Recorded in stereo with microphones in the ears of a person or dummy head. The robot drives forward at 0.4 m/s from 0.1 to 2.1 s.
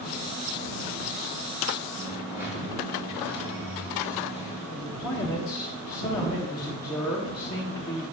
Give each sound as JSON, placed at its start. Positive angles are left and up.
{"t": 1.9, "sound": "a dropped coin", "side_deg": -15, "distance_m": 1.8}
{"t": 4.7, "sound": "a man speaking", "side_deg": 10, "distance_m": 0.7}